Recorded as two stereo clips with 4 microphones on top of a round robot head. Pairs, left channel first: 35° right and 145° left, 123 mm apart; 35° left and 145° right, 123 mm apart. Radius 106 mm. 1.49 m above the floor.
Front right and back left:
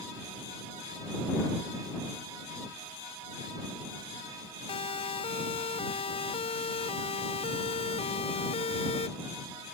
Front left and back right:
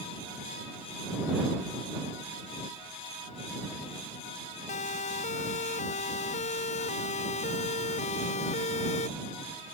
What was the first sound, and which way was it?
A siren, 10° left.